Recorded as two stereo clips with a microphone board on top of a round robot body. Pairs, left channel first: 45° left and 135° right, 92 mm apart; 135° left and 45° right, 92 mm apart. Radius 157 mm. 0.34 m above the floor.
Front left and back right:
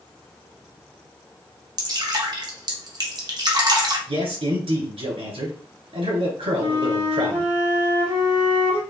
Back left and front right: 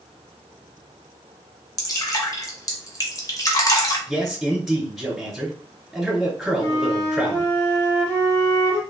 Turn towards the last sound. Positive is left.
turn(degrees=-160)